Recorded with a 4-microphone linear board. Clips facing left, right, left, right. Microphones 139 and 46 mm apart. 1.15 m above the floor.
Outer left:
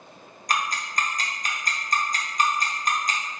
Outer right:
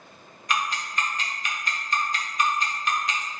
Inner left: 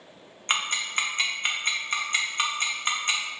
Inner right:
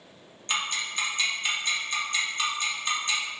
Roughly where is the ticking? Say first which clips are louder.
Even, inner left 3 dB; left.